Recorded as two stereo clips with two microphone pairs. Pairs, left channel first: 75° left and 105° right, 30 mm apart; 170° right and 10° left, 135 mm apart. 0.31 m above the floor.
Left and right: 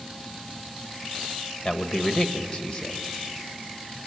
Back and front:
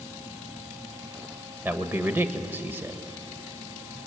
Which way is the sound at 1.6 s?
70° left.